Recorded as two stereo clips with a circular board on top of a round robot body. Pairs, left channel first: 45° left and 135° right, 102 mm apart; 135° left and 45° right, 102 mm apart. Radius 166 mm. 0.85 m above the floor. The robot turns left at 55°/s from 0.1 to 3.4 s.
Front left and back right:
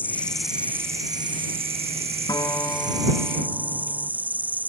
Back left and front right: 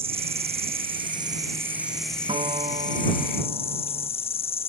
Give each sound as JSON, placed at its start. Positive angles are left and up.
{"t": 0.0, "sound": "an insect", "azimuth_deg": -30}
{"t": 2.3, "sound": "a guitar", "azimuth_deg": -10}